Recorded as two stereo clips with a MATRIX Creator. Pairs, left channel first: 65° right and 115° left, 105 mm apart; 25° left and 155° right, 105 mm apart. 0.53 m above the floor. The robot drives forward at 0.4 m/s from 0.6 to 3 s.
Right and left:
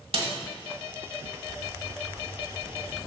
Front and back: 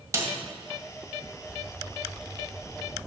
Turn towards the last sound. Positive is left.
turn(degrees=160)